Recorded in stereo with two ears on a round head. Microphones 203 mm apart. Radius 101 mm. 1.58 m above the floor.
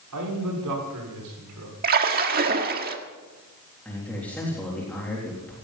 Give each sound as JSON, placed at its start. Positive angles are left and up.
{"t": 0.1, "sound": "a man speaking", "side_deg": -90, "distance_m": 5.5}
{"t": 1.8, "sound": "a splash", "side_deg": -40, "distance_m": 1.6}
{"t": 3.9, "sound": "a man speaking", "side_deg": 5, "distance_m": 3.5}